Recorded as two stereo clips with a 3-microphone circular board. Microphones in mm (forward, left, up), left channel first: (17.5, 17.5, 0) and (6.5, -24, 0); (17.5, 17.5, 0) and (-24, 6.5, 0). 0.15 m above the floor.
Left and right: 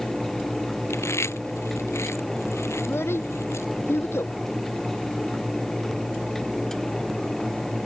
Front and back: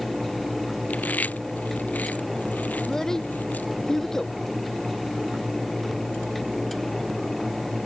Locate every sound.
0.9 s chewing: 70° left
2.8 s a child speaking: 95° left